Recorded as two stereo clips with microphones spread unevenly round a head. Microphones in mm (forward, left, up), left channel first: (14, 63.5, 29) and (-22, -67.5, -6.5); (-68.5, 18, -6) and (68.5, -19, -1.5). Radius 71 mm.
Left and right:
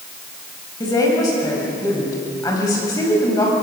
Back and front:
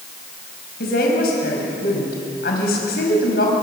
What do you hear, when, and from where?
0.8 s a woman speaking: 140° left, 5 m